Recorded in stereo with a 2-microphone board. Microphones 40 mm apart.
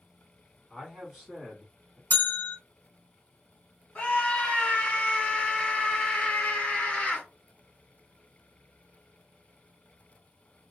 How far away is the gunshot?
No gunshot in this recording.